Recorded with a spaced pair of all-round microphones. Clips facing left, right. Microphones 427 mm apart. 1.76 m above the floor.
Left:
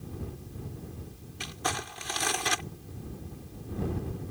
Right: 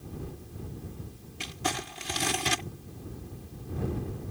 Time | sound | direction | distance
1.4 | crumpling | 45° right (ahead or behind) | ?